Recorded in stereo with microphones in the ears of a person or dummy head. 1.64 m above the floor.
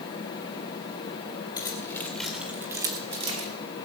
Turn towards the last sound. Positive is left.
turn(degrees=-40)  # may be behind; listen again after turning